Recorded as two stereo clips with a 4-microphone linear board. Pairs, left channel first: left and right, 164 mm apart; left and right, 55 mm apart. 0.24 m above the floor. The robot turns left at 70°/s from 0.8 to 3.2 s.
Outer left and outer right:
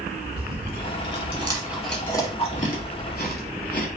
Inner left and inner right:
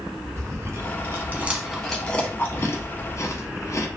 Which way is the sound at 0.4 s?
60° right (ahead or behind).